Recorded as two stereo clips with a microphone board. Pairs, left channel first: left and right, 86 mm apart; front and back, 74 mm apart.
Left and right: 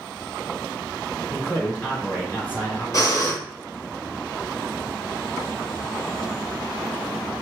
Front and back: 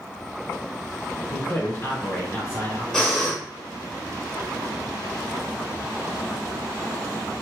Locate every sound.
1.3 s a man speaking: 35° left, 2 m
2.9 s breathing: 75° left, 1.7 m